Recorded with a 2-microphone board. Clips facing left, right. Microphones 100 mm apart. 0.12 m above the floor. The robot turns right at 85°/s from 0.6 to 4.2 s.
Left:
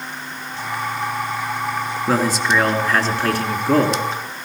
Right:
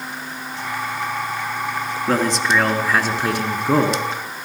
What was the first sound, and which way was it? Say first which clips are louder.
A man speaking: even; 10° left (ahead or behind).